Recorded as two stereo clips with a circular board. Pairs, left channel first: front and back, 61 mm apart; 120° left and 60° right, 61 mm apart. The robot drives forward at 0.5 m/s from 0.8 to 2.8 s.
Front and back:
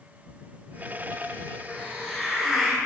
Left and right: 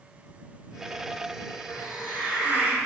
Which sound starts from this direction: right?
A hiss, at 1.7 s.